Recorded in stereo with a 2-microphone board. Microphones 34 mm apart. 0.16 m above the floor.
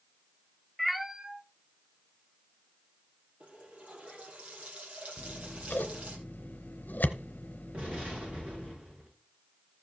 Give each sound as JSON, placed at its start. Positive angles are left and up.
{"t": 0.8, "sound": "a cat meowing", "side_deg": 10, "distance_m": 0.5}
{"t": 3.4, "sound": "a running tap", "side_deg": -45, "distance_m": 3.0}
{"t": 5.2, "sound": "scissors", "side_deg": 65, "distance_m": 0.9}
{"t": 7.7, "sound": "an explosion", "side_deg": -45, "distance_m": 7.5}